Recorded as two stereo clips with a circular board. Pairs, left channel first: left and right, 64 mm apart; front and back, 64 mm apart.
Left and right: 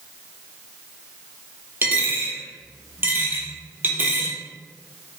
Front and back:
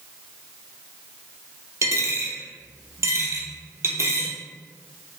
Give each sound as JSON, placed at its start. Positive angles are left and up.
{"t": 1.8, "sound": "a dropped coin", "azimuth_deg": -145, "distance_m": 0.6}